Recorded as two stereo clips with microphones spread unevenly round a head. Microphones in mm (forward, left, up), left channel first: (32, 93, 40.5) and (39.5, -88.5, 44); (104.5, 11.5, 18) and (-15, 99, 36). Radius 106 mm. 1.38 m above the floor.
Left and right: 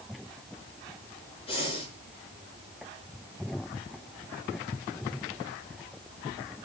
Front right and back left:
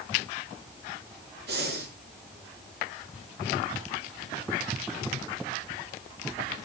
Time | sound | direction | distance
1.5 | breathing | 160° left | 4.5 m